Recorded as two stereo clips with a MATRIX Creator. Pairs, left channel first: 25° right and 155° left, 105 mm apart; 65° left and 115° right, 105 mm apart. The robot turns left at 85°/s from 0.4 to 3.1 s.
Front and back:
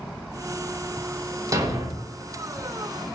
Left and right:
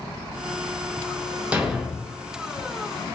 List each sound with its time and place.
1.5 s a thud: 175° left, 0.7 m; by 2.1 s 125° left, 0.7 m